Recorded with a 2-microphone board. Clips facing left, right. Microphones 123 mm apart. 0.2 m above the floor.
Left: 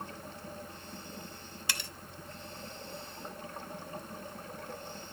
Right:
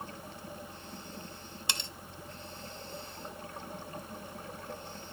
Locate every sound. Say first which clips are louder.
1.7 s cutlery clinking: right 1 dB; 25° right (ahead or behind), 0.6 m